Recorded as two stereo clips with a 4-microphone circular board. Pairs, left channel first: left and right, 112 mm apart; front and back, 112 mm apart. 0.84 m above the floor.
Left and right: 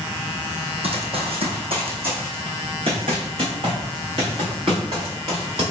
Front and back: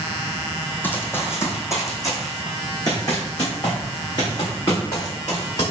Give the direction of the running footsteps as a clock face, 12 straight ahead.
2 o'clock.